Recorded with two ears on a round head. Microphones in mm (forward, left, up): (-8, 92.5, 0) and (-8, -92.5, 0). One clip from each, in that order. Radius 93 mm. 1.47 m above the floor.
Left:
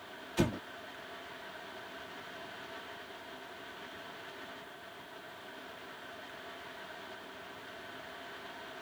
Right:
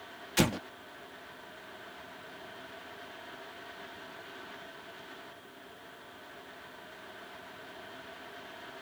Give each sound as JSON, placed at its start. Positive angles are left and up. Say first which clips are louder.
{"t": 0.4, "sound": "an explosion", "louder": "right 5 dB", "side_deg": -55}